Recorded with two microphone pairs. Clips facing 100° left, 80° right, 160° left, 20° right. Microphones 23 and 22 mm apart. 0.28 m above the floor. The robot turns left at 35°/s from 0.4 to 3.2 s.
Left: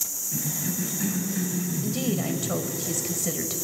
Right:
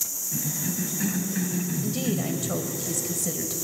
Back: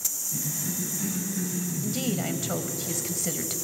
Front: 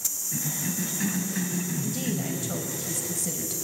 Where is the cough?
10° left, 1.8 m; by 2.7 s 70° right, 1.8 m.